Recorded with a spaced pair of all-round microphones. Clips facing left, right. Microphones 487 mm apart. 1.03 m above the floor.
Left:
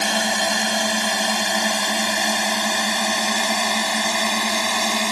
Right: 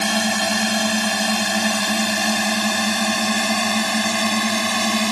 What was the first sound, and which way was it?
A drone, 25° right (ahead or behind).